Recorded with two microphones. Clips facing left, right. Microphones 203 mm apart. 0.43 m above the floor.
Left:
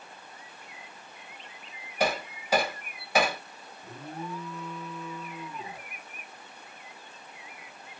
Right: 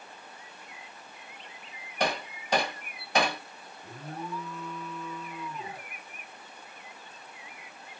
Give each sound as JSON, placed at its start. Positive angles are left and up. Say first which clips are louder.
{"t": 2.0, "sound": "hammering", "louder": "left 2 dB", "side_deg": 5, "distance_m": 0.9}
{"t": 3.8, "sound": "an alarm", "louder": "left 1 dB", "side_deg": 5, "distance_m": 1.9}